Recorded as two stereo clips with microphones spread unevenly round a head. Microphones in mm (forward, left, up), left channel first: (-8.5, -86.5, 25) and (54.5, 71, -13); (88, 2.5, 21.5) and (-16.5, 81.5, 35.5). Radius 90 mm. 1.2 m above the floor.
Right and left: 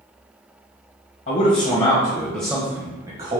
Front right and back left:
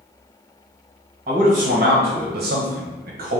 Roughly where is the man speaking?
Behind right.